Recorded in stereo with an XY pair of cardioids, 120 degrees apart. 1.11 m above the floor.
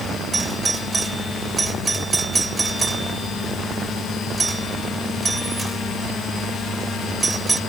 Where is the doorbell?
20° right.